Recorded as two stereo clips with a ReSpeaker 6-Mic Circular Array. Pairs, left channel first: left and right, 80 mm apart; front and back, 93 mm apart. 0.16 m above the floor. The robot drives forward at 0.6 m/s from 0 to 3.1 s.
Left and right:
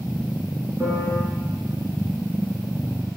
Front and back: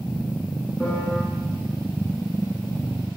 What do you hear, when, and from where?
0.8 s a piano: 75° right, 1.9 m; by 1.2 s 90° right, 1.8 m